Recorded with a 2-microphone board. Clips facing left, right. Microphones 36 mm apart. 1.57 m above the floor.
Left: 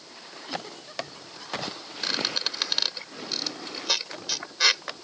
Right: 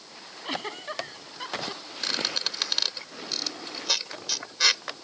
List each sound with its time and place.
0.4 s a giggle: 50° right (ahead or behind)
2.0 s a squeak: 5° left (ahead or behind)